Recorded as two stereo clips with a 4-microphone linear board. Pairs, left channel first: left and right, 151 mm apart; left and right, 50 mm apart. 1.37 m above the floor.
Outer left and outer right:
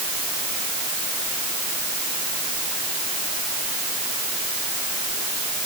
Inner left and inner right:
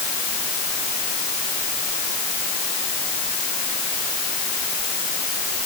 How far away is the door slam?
I don't hear a door slam.